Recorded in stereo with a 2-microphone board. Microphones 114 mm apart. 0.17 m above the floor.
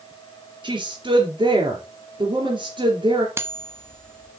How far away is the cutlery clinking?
About 0.9 m.